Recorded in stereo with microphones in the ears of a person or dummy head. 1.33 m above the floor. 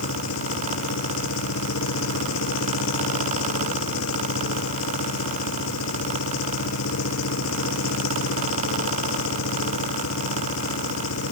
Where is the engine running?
90° left.